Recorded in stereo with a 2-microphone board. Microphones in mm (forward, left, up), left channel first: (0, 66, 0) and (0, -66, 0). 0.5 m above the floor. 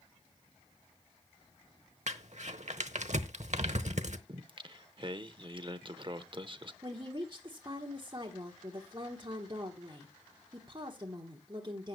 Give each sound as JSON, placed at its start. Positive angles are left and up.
{"t": 2.1, "sound": "crumpling", "side_deg": -60, "distance_m": 0.8}
{"t": 4.3, "sound": "singing", "side_deg": -40, "distance_m": 0.7}
{"t": 6.8, "sound": "a woman speaking", "side_deg": -35, "distance_m": 1.2}